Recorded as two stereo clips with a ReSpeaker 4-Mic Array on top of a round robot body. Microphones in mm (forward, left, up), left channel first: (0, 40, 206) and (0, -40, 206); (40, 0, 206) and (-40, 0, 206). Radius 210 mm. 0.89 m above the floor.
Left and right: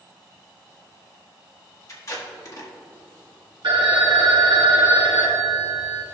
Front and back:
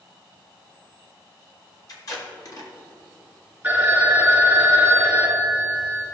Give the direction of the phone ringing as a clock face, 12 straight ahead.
4 o'clock.